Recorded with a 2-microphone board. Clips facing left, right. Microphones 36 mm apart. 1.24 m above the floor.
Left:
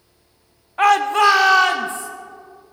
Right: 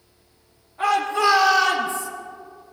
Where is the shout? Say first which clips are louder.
Left 6 dB; 70° left (ahead or behind), 1.0 m; by 2.1 s 35° left (ahead or behind), 1.7 m.